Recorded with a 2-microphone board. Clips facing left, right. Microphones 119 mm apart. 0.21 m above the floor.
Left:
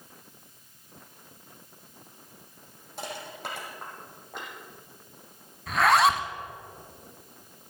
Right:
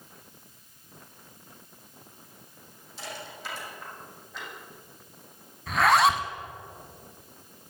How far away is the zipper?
About 0.9 m.